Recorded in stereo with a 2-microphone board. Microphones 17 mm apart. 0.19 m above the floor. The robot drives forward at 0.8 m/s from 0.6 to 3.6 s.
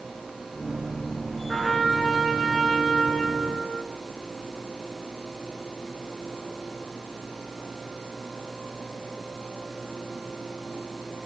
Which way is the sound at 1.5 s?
Centre (ahead or behind).